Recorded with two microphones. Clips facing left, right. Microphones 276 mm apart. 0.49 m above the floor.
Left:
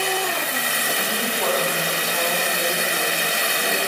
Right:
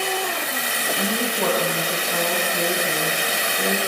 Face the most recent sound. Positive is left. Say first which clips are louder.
# right 5 dB
turn(degrees=-60)  # may be behind; listen again after turning